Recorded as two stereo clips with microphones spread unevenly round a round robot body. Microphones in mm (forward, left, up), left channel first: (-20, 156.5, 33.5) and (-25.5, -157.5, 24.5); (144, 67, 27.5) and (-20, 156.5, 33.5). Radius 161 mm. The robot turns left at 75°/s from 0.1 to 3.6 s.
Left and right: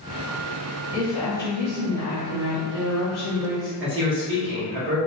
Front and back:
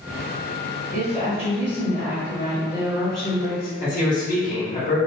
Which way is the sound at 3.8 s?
55° right.